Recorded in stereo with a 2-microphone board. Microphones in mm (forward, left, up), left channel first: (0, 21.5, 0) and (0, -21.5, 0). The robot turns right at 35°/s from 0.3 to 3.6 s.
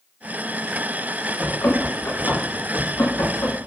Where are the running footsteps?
75° left (ahead or behind), 5 m; by 3.5 s 45° left (ahead or behind), 5 m.